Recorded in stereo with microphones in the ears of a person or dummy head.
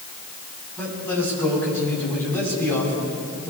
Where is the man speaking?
15° left (ahead or behind), 7.5 m.